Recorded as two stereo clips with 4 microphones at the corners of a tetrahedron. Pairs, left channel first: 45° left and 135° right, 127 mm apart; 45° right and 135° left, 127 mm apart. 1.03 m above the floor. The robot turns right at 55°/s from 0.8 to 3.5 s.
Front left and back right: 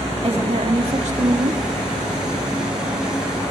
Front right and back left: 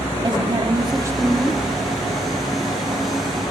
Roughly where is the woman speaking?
Behind.